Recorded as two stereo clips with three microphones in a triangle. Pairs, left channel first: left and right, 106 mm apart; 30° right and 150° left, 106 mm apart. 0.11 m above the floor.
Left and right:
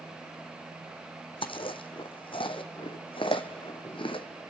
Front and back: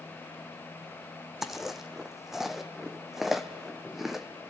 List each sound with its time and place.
1.4 s chewing: 65° left, 1.1 m